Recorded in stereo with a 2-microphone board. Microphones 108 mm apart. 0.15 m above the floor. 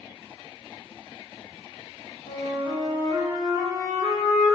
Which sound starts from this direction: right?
A flute, at 2.3 s.